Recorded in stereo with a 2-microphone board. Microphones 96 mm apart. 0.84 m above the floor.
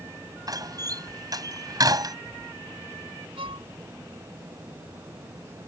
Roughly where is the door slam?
Right.